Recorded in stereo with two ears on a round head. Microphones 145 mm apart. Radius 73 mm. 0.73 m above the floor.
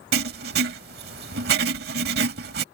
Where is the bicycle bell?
No bicycle bell in this recording.